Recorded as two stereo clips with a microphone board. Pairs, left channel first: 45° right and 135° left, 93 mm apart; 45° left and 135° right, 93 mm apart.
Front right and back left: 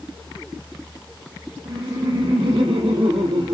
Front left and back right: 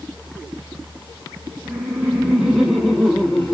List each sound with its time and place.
1.6 s laughter: 155° left, 4 m; by 3.5 s 125° left, 4 m